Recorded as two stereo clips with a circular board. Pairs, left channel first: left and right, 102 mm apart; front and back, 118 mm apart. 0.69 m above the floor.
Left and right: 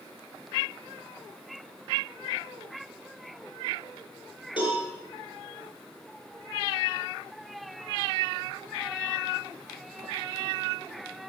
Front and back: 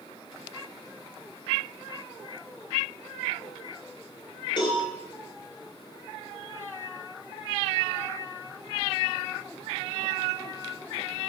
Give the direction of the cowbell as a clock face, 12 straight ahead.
10 o'clock.